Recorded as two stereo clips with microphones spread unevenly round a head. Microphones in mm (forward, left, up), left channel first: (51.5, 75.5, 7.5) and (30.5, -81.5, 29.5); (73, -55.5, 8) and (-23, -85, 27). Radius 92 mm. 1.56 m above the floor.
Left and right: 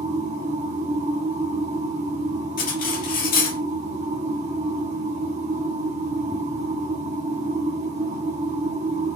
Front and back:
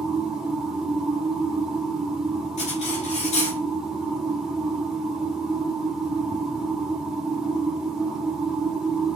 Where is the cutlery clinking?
50° left, 1.6 m.